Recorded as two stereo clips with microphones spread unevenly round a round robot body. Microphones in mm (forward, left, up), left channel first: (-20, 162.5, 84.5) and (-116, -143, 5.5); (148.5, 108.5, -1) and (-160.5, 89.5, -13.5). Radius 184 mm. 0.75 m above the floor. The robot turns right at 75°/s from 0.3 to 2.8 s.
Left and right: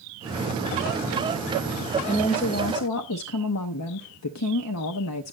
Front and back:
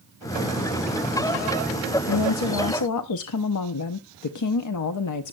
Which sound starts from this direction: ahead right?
A woman speaking, at 2.1 s.